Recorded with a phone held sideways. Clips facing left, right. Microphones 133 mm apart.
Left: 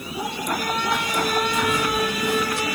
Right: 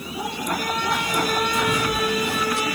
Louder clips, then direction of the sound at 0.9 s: Right 1 dB; 40° right (ahead or behind).